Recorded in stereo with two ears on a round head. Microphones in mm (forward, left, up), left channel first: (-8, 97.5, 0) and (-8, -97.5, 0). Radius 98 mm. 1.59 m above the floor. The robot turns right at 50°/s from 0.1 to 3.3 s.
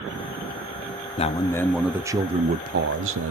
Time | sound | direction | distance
1.2 | a man speaking | 150° left | 0.8 m